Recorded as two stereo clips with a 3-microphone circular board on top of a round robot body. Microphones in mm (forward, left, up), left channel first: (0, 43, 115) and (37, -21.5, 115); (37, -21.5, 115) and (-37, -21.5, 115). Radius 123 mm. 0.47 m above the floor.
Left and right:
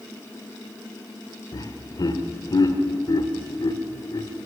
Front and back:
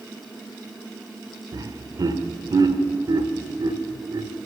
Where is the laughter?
150° left, 2 m.